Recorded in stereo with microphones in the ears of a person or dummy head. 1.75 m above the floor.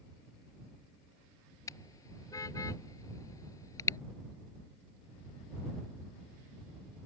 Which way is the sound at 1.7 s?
20° left (ahead or behind).